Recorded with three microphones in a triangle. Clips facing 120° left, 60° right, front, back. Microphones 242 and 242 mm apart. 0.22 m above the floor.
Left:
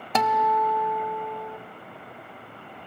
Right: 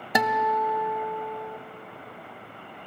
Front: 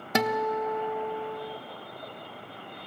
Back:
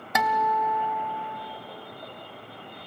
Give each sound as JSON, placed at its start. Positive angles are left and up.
{"t": 0.1, "sound": "a guitar", "azimuth_deg": 5, "distance_m": 0.6}